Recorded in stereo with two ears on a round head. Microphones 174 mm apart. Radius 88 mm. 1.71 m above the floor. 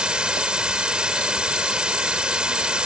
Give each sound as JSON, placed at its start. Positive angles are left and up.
{"t": 0.0, "sound": "running water", "side_deg": -5}